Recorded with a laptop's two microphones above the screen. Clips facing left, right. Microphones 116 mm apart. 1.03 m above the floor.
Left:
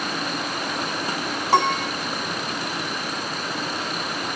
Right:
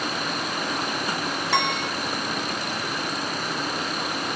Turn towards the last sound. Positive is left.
turn(degrees=35)  # may be behind; listen again after turning